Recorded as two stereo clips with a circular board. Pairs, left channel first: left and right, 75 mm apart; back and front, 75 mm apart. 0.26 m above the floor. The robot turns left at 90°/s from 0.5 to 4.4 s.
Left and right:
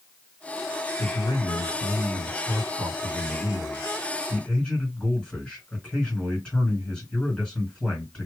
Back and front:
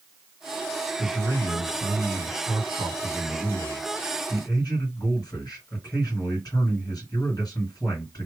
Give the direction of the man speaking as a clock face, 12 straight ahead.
8 o'clock.